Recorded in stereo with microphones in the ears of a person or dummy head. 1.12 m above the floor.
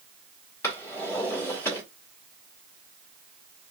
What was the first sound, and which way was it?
A drawer, 15° left (ahead or behind).